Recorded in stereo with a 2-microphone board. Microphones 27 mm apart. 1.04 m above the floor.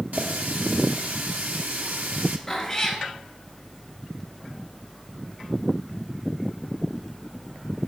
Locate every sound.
0.1 s a running tap: 75° right (ahead or behind), 1.3 m
2.5 s a cat meowing: 10° left (ahead or behind), 2.5 m